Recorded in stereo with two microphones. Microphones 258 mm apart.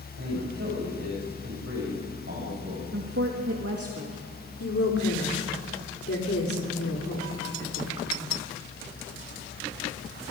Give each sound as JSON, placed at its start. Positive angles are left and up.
{"t": 0.2, "sound": "a man speaking", "side_deg": -55, "distance_m": 6.5}
{"t": 2.9, "sound": "a woman speaking", "side_deg": -65, "distance_m": 2.0}
{"t": 4.6, "sound": "a woman speaking", "side_deg": 55, "distance_m": 4.0}